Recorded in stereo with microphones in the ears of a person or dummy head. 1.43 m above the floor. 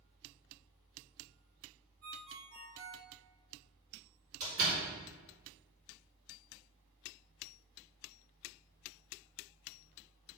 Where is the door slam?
50° right (ahead or behind), 2.5 m.